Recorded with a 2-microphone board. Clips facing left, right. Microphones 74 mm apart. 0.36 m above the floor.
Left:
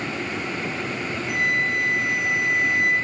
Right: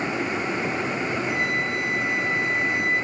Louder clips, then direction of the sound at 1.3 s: Left 2 dB; 65° left (ahead or behind).